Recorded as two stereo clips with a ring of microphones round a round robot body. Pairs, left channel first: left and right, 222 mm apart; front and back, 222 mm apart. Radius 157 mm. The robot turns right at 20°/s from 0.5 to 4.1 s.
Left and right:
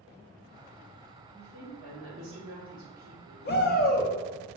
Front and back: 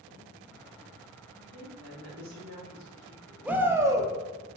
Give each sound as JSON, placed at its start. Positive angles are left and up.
{"t": 1.3, "sound": "a woman speaking", "azimuth_deg": 175, "distance_m": 1.0}
{"t": 3.5, "sound": "a shout", "azimuth_deg": 100, "distance_m": 0.5}